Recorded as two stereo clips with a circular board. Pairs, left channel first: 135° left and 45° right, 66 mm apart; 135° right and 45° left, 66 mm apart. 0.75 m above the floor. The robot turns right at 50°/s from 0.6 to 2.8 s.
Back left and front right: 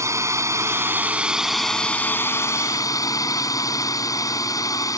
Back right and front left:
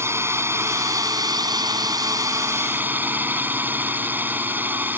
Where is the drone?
5° right; by 5.0 s 105° left.